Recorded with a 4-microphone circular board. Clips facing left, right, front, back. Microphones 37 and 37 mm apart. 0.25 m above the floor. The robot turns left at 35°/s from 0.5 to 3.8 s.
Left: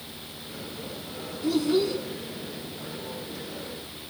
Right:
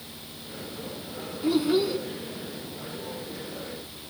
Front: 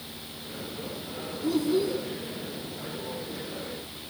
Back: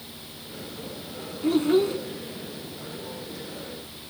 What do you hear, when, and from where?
1.4 s a child speaking: 150° right, 1.5 m; by 2.0 s 170° right, 1.5 m